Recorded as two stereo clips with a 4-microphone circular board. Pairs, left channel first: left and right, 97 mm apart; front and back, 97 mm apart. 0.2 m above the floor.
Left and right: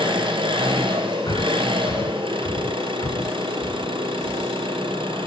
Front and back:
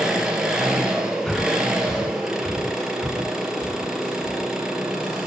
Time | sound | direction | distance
0.0 | an engine running | 100° right | 2.5 m
1.3 | breathing | 80° left | 0.6 m